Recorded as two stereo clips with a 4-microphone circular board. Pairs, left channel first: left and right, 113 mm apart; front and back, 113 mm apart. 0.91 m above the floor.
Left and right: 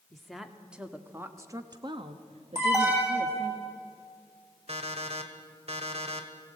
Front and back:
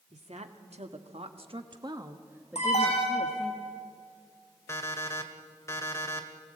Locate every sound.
0.1 s a woman speaking: straight behind, 2.0 m; by 3.5 s 75° right, 1.6 m
2.5 s an alarm: 25° right, 9.5 m
4.7 s an alarm clock: 65° right, 2.0 m